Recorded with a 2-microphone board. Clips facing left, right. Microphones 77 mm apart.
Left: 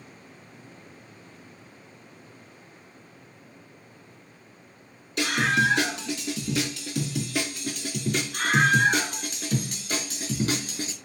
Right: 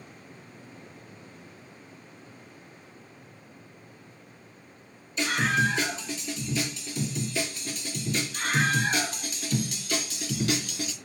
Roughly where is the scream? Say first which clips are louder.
Left 2 dB; left.